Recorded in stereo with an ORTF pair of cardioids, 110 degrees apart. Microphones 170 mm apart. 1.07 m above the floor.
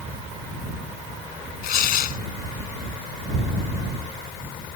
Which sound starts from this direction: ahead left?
Tearing paper, at 1.6 s.